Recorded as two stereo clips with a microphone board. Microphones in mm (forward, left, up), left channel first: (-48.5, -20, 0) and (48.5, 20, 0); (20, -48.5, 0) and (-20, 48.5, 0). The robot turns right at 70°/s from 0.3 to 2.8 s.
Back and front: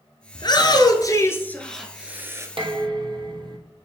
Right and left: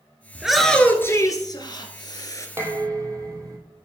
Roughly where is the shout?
Behind.